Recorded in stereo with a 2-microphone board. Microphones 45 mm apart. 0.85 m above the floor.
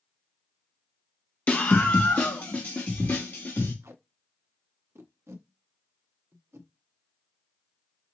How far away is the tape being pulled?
About 0.8 m.